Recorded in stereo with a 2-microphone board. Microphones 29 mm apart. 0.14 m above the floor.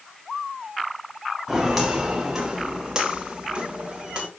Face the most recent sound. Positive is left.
turn(degrees=-35)  # may be behind; listen again after turning